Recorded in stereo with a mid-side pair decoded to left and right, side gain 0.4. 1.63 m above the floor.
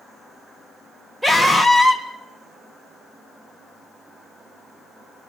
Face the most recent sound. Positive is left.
turn(degrees=-15)